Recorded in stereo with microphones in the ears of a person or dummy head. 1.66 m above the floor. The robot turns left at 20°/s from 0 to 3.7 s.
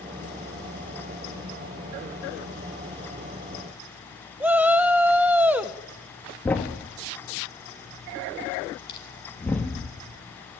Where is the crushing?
25° left (ahead or behind), 4.5 m.